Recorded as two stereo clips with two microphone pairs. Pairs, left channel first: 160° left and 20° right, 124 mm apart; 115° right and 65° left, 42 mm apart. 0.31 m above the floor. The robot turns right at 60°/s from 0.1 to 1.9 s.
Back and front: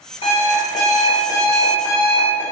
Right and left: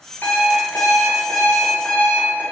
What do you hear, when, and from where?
0.2 s an alarm clock: 165° right, 2.0 m; by 2.4 s 65° right, 2.0 m